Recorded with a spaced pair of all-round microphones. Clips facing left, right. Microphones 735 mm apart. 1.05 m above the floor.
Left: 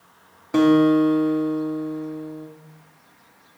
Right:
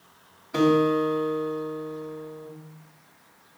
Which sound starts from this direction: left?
A guitar, at 0.5 s.